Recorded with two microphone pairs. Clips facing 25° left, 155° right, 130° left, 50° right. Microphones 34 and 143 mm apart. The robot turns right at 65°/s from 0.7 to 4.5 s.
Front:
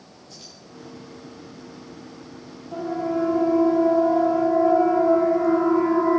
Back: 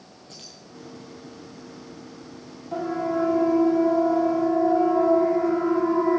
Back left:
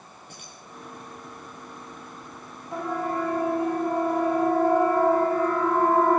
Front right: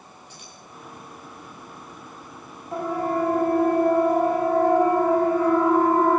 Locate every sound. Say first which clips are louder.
0.3 s keys jangling: back 1 dB, even; 170° left, 7 m
2.7 s a siren: even, front right 3 dB; 110° right, 8.5 m; by 6.2 s 40° left, 9 m